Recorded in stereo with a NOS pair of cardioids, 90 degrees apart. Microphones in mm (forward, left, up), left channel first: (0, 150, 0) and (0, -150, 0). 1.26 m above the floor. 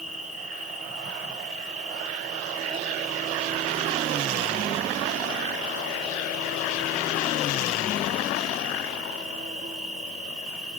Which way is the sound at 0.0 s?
25° right.